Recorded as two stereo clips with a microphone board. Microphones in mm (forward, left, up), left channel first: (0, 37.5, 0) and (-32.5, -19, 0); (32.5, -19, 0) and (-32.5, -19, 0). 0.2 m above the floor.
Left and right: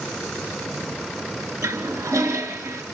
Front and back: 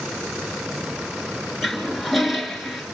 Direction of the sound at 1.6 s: 90° right.